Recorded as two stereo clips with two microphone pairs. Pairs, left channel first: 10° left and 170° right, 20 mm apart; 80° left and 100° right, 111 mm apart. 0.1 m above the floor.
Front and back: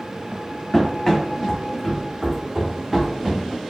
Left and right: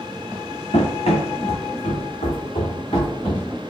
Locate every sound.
0.7 s running footsteps: 80° left, 1.7 m; by 3.4 s 125° left, 2.0 m